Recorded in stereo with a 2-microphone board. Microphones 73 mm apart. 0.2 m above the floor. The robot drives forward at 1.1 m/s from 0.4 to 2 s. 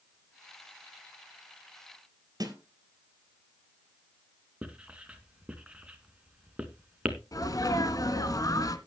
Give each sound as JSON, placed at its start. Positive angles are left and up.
{"t": 2.4, "sound": "a snare drum", "side_deg": -60, "distance_m": 3.0}
{"t": 4.6, "sound": "writing", "side_deg": -15, "distance_m": 1.9}
{"t": 7.3, "sound": "a sneeze", "side_deg": 55, "distance_m": 2.0}